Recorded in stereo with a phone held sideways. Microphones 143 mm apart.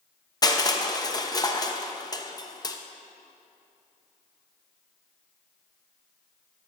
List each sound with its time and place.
0.4 s crushing: 25° left (ahead or behind), 0.7 m